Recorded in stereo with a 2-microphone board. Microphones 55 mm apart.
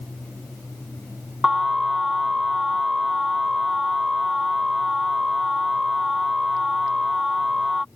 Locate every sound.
1.4 s an alarm: 5° right (ahead or behind)